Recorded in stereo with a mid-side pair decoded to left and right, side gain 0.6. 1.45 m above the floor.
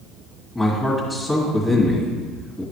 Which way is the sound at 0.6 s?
15° left.